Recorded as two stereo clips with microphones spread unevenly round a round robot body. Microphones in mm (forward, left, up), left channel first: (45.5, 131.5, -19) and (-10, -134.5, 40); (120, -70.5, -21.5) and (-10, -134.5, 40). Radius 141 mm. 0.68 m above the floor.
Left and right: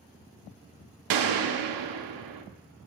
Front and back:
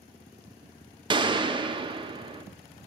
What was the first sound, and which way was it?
A gunshot, 85° right.